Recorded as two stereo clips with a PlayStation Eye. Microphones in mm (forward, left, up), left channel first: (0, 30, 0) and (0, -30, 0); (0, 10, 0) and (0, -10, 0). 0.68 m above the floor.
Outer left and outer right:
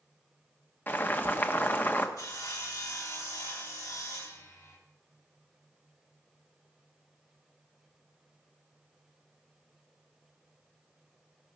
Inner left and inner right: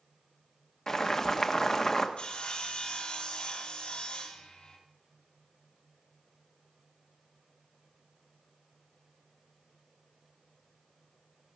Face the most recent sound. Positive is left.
turn(degrees=80)